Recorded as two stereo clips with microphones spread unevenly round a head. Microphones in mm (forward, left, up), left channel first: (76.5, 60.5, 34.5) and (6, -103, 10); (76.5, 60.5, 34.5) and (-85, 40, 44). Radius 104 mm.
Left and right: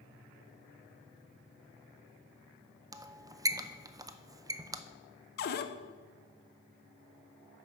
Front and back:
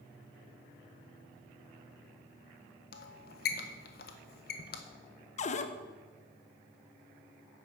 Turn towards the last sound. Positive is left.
turn(degrees=55)